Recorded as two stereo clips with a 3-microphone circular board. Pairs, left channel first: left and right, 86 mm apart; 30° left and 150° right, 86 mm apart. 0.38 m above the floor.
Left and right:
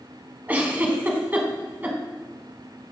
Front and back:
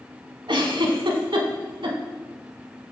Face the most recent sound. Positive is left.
turn(degrees=-160)